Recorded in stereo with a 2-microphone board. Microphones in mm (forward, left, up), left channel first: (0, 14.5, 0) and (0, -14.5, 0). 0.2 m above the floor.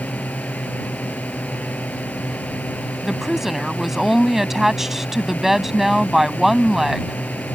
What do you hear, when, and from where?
0.0 s a drone: 70° left (ahead or behind)
3.0 s a woman speaking: 15° right (ahead or behind)